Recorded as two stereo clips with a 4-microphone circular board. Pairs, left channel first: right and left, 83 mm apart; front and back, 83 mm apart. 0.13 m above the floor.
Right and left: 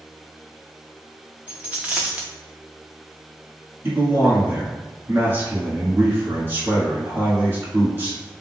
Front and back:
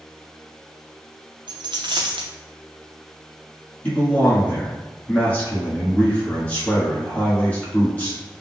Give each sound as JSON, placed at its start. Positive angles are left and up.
{"t": 1.5, "sound": "a dropped coin", "azimuth_deg": 165, "distance_m": 0.6}
{"t": 3.8, "sound": "a man speaking", "azimuth_deg": 55, "distance_m": 1.2}